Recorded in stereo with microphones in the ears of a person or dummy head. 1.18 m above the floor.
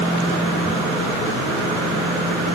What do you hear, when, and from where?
Only background noise.